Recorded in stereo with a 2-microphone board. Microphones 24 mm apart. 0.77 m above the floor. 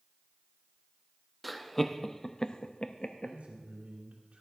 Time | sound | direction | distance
1.4 | laughter | centre (ahead or behind) | 0.8 m
3.2 | a man speaking | 60° right (ahead or behind) | 2.5 m